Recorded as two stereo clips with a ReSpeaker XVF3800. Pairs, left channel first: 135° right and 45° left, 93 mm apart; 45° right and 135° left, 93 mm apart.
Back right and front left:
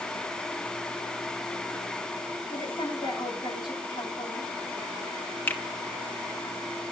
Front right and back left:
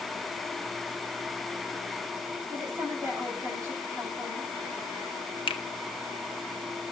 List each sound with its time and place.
2.5 s a woman speaking: 170° right, 9.5 m
5.5 s a finger snap: 65° right, 1.3 m